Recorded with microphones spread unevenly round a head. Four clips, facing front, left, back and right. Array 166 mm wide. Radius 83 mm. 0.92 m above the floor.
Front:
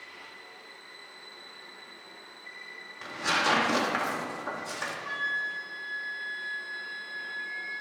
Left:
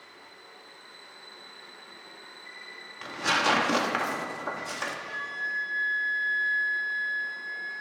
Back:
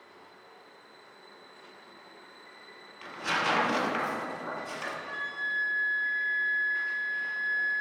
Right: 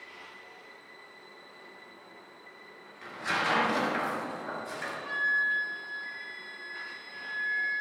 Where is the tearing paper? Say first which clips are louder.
Left 5 dB, front 2 dB; 70° left, 1.3 m.